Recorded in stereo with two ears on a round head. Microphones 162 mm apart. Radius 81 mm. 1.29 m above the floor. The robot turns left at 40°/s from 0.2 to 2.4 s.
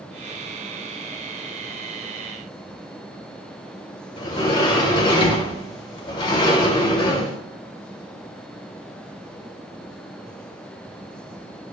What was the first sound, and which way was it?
A sliding door, 25° left (ahead or behind).